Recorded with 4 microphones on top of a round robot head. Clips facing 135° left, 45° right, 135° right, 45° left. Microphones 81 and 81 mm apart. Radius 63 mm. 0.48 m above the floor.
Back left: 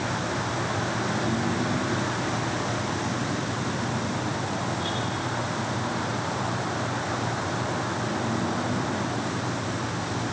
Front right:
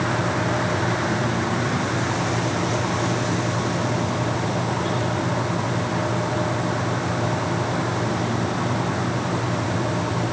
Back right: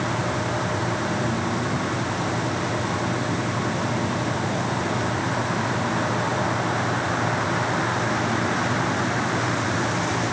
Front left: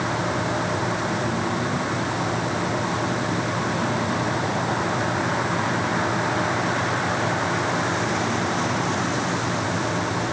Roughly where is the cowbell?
I don't hear a cowbell.